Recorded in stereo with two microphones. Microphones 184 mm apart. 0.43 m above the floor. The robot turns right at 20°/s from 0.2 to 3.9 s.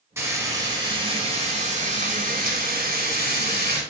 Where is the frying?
165° right, 4 m; by 3.8 s 90° right, 4 m.